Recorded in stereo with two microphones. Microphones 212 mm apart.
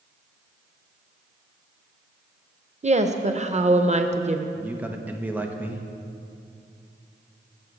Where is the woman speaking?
35° right (ahead or behind), 0.6 m.